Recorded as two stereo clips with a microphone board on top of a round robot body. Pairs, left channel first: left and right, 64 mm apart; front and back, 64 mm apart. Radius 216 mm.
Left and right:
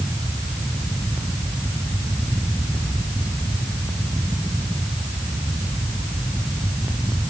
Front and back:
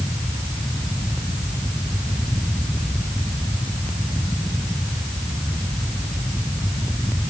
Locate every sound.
Only background noise.